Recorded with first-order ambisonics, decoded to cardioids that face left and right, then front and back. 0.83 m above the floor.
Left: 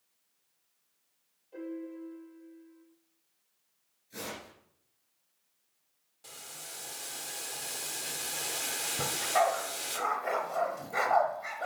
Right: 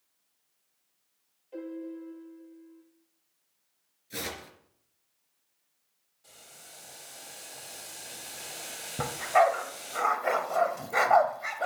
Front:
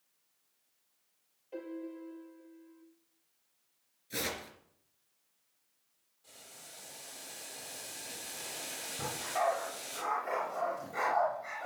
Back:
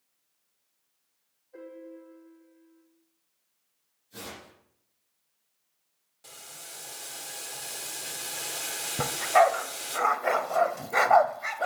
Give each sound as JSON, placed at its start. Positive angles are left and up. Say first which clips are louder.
{"t": 1.5, "sound": "a piano", "louder": "right 2 dB, front 1 dB", "azimuth_deg": -20, "distance_m": 5.5}
{"t": 4.1, "sound": "tearing paper", "louder": "right 4 dB, front 5 dB", "azimuth_deg": -35, "distance_m": 3.0}
{"t": 6.2, "sound": "boiling", "louder": "left 6 dB, back 8 dB", "azimuth_deg": 140, "distance_m": 2.0}
{"t": 9.0, "sound": "a dog barking", "louder": "right 5 dB, back 12 dB", "azimuth_deg": -160, "distance_m": 1.0}